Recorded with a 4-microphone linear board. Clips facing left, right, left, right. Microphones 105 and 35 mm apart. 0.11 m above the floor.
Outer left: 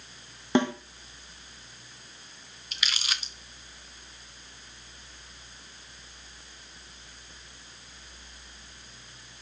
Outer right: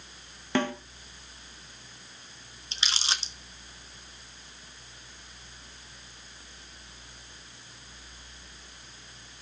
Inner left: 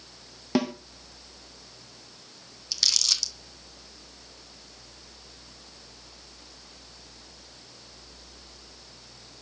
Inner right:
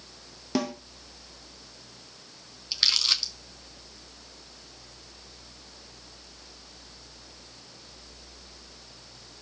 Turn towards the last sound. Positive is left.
turn(degrees=-30)  # may be behind; listen again after turning